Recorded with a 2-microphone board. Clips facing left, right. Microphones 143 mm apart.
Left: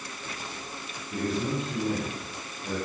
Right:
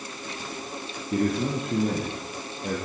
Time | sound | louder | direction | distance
1.1 | a man speaking | right 4 dB | 55° right (ahead or behind) | 8 m